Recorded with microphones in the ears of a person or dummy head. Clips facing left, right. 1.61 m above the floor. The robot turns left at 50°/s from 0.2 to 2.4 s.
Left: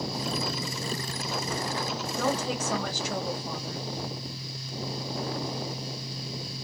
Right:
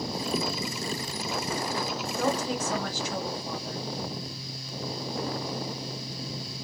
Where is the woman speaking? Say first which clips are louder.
Right 1 dB; 75° left (ahead or behind), 1.3 m; by 3.8 s 65° left (ahead or behind), 1.3 m.